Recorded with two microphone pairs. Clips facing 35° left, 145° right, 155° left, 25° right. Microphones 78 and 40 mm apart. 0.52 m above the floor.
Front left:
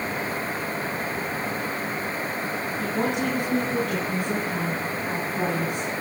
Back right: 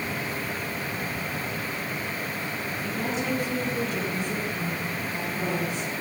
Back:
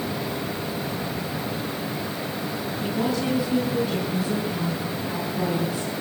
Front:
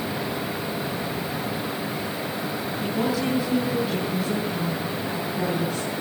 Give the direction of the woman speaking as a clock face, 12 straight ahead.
10 o'clock.